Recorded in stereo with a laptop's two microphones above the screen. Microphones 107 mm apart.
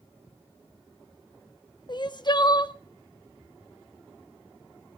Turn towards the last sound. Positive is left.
turn(degrees=45)  # may be behind; listen again after turning